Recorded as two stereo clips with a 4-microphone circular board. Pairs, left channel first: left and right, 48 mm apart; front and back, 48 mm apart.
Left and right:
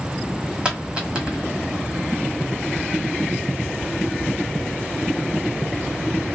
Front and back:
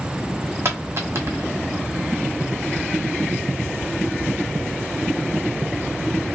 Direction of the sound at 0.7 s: 155° right.